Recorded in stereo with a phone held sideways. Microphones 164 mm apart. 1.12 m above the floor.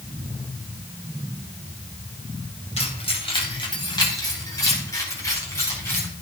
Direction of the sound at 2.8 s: 40° left (ahead or behind).